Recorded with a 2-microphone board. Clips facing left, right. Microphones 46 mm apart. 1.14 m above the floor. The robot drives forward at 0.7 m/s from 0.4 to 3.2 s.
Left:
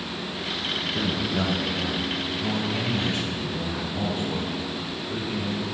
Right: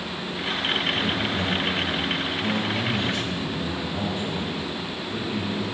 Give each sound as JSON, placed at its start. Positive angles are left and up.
{"t": 0.9, "sound": "a man speaking", "side_deg": 45, "distance_m": 0.7}